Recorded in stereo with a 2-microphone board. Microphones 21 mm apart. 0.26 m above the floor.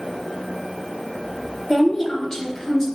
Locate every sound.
1.7 s a woman speaking: 20° left (ahead or behind), 1.3 m